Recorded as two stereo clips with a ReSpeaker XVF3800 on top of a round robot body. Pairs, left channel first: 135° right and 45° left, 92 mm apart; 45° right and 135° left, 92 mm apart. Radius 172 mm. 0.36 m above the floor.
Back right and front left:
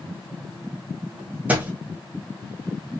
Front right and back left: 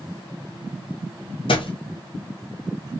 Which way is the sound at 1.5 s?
30° right.